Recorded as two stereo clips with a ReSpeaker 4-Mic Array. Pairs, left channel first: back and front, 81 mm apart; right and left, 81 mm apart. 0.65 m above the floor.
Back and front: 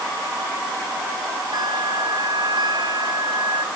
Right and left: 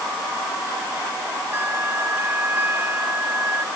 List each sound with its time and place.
1.5 s a bell: 25° left